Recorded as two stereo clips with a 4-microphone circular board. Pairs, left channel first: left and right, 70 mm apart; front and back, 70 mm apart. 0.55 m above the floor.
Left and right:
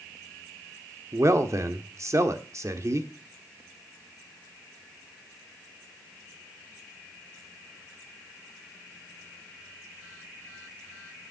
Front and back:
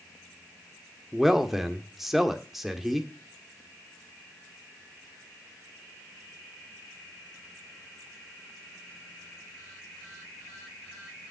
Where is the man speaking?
95° right, 1.5 m.